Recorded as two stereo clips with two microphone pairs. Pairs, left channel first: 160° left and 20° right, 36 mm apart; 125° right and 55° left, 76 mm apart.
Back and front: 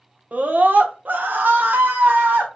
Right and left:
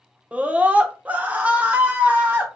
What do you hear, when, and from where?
0.3 s a scream: 10° right, 0.8 m